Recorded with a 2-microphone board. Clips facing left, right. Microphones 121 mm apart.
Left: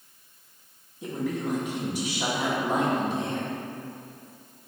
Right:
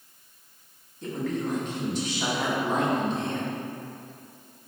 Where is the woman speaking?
10° left (ahead or behind), 1.0 m.